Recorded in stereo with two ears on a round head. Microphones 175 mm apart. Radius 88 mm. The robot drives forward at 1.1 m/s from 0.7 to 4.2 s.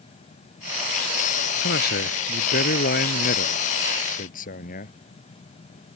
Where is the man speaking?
55° left (ahead or behind); by 5.0 s 45° left (ahead or behind).